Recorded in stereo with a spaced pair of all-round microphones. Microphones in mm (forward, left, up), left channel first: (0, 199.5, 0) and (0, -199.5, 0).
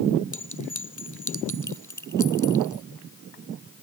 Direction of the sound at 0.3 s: 45° left (ahead or behind).